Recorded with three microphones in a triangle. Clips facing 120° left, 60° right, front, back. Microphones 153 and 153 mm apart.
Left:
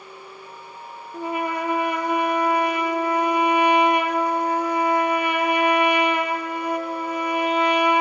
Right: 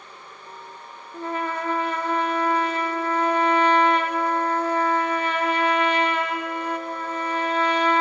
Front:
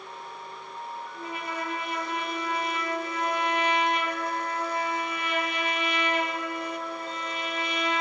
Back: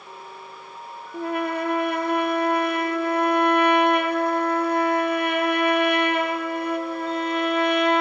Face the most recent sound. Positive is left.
turn(degrees=-165)